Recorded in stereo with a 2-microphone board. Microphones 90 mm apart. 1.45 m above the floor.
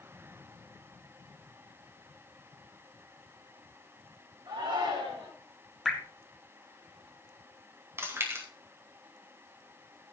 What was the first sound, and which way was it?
A shout, 70° right (ahead or behind).